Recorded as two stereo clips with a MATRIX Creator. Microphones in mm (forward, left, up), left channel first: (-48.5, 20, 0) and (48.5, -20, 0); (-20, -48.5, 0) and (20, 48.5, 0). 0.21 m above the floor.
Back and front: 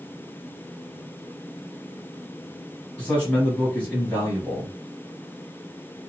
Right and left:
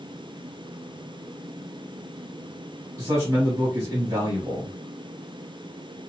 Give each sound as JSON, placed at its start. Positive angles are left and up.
{"t": 3.0, "sound": "a man speaking", "azimuth_deg": 90, "distance_m": 1.2}